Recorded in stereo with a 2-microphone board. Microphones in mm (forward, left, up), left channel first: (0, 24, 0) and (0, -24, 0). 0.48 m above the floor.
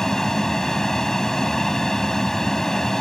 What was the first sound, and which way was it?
An aircraft, 5° left (ahead or behind).